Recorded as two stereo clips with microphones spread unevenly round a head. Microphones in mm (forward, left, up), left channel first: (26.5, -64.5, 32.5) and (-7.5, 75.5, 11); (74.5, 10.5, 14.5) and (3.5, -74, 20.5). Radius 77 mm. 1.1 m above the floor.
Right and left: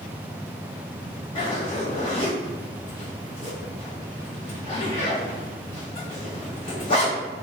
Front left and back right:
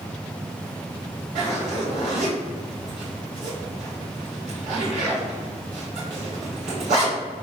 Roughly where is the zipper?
Behind right.